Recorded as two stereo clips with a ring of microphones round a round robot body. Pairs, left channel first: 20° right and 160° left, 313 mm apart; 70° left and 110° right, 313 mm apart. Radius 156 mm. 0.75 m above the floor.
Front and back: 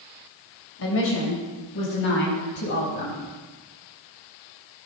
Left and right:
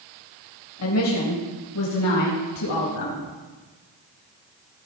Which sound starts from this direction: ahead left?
A woman speaking, at 0.8 s.